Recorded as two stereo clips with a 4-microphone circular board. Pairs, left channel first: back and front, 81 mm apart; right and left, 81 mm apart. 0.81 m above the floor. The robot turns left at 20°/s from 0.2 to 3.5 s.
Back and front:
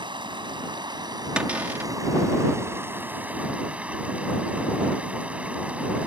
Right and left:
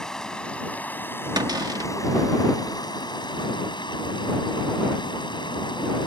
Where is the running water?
5° right; by 6.1 s 75° right.